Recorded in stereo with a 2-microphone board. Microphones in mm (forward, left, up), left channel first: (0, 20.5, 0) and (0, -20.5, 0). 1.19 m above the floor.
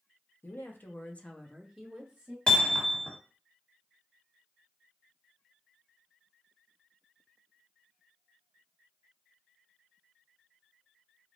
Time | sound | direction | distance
0.4 | a woman speaking | 60° left (ahead or behind) | 1.1 m
2.5 | hammering | 20° left (ahead or behind) | 1.3 m